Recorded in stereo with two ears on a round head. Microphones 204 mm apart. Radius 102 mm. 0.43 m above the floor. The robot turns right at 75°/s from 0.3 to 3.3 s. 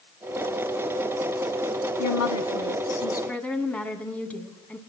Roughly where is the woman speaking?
Left.